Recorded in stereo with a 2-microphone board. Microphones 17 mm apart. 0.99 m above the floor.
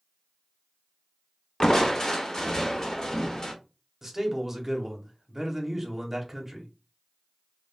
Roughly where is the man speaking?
Right.